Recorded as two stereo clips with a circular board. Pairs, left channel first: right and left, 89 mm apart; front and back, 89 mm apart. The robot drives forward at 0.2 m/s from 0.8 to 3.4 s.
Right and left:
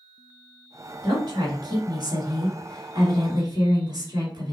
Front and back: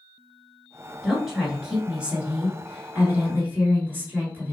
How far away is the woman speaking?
About 1.6 m.